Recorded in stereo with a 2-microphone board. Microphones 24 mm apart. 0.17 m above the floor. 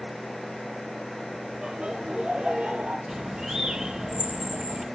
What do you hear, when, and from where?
1.6 s laughter: 45° right (ahead or behind), 6.5 m; by 3.0 s 55° right (ahead or behind), 5.5 m
3.1 s a bird: 30° right (ahead or behind), 4.5 m